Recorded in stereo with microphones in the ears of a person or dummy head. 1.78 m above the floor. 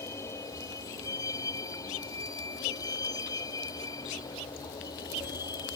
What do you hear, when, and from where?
0.0 s a vehicle: 20° left (ahead or behind); by 5.8 s 25° left (ahead or behind)